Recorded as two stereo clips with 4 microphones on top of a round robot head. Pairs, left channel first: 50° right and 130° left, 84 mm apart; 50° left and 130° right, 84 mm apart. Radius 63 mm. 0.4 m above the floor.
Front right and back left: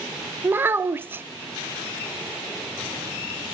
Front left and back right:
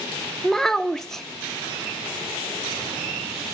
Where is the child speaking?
130° left, 0.6 m.